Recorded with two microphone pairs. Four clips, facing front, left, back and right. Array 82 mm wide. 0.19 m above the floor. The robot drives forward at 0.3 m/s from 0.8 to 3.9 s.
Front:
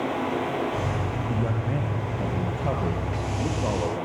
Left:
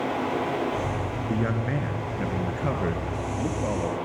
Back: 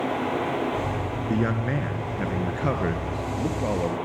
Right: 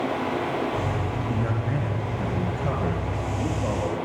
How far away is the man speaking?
About 2 m.